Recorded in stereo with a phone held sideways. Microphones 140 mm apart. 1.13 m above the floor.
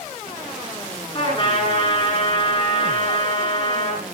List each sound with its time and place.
1.1 s a trumpet: 35° left (ahead or behind), 8.5 m